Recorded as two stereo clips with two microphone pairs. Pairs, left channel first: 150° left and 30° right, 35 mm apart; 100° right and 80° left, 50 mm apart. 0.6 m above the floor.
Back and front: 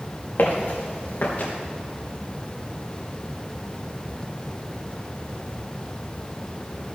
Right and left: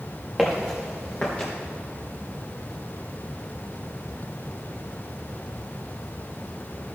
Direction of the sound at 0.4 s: 170° left.